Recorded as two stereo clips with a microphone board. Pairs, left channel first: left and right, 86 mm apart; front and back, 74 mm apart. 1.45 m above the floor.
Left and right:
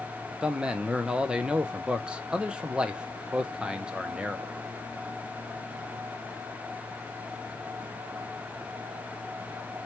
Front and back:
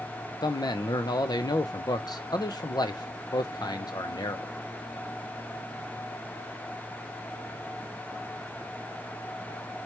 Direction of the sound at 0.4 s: 10° right.